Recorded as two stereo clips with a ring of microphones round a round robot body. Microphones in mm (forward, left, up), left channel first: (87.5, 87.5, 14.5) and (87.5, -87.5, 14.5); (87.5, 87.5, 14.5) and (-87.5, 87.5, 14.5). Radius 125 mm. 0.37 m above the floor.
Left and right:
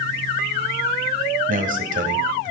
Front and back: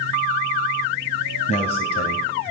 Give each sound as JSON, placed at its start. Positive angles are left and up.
{"t": 1.5, "sound": "a man speaking", "azimuth_deg": -60, "distance_m": 1.8}